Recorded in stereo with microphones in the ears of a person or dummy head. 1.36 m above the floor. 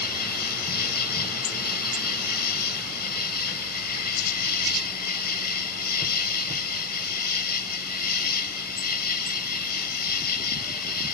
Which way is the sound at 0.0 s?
50° left (ahead or behind).